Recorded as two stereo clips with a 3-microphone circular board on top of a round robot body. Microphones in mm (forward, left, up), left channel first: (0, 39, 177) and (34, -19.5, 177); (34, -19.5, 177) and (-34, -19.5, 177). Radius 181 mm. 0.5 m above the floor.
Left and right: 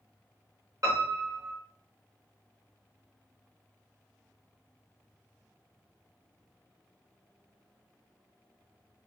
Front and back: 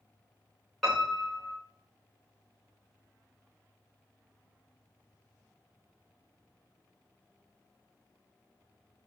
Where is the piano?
90° right, 2.5 m.